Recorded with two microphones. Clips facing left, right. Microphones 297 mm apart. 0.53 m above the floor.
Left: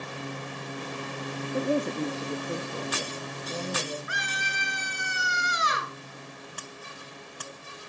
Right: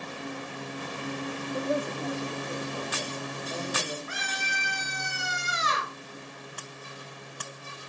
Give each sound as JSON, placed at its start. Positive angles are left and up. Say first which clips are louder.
{"t": 1.5, "sound": "a woman speaking", "louder": "left 4 dB", "side_deg": 25, "distance_m": 0.7}
{"t": 4.1, "sound": "a scream", "louder": "right 1 dB", "side_deg": 15, "distance_m": 6.5}